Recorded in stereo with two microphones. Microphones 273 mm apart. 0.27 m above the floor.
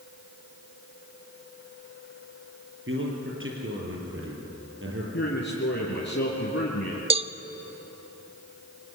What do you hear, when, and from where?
2.9 s a man speaking: 45° right (ahead or behind), 6.5 m
5.1 s a man speaking: 40° left (ahead or behind), 4.5 m
7.1 s a cowbell: 20° right (ahead or behind), 0.5 m